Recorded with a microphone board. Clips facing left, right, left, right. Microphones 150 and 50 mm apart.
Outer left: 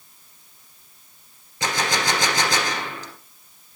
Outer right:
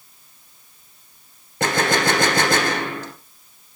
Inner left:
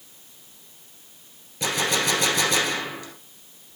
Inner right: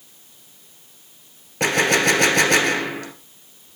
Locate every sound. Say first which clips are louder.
1.6 s a gunshot: outer right 5 dB, inner right 7 dB; 60° right (ahead or behind), 1.8 m